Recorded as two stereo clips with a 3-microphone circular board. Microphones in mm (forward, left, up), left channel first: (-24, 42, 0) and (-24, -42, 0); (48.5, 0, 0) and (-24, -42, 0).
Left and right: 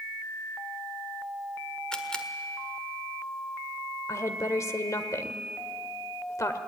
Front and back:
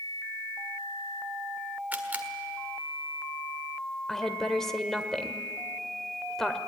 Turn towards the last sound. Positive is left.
turn(degrees=110)